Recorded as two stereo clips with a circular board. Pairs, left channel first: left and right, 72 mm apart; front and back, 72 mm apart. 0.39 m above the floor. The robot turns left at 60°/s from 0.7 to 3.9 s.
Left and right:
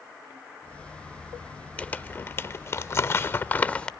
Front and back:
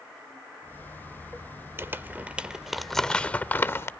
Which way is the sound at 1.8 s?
150° left.